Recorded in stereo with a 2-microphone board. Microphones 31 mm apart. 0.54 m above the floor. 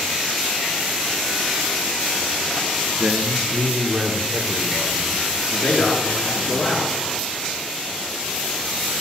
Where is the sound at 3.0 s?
20° right (ahead or behind), 0.8 m; by 6.6 s 10° right (ahead or behind), 3.5 m.